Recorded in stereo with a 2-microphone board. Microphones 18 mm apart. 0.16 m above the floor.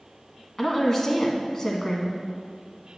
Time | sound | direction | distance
0.6 | a woman speaking | 25° left (ahead or behind) | 1.3 m